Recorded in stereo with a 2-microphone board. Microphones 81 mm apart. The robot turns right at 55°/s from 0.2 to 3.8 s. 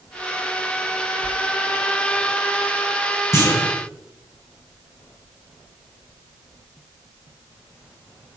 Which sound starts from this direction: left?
A clunk, at 3.3 s.